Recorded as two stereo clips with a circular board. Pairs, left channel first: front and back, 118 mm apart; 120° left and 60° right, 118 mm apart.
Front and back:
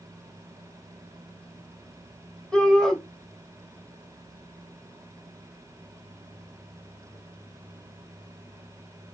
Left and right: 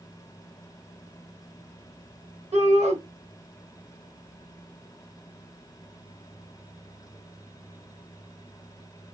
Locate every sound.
2.5 s a shout: 85° right, 1.6 m